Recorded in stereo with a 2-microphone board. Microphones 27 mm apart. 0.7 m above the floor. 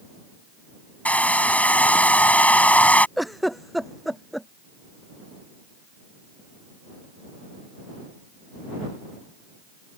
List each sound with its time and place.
1.1 s a hair dryer: 60° left (ahead or behind)
3.2 s a giggle: centre (ahead or behind)